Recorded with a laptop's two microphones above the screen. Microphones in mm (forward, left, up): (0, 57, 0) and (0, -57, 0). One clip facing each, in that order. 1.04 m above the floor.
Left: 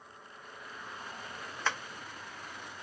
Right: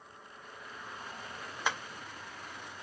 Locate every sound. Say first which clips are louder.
1.6 s tapping: even; 15° right (ahead or behind), 0.6 m